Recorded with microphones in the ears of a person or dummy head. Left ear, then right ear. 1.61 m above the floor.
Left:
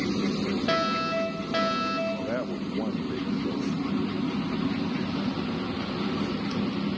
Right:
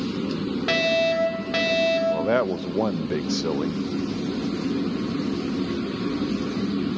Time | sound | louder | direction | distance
0.7 | a fire alarm | right 6 dB | 20° right (ahead or behind) | 9.5 m
2.1 | a man speaking | right 9 dB | 85° right | 0.5 m